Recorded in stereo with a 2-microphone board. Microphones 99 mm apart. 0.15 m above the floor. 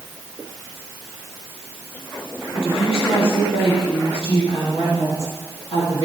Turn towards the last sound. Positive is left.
turn(degrees=75)  # may be behind; listen again after turning